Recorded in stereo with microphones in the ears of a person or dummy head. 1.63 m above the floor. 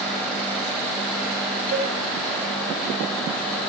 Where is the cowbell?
50° right (ahead or behind), 4.5 m.